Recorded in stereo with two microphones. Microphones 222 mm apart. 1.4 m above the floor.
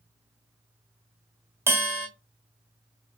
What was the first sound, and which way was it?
A bell, 10° right (ahead or behind).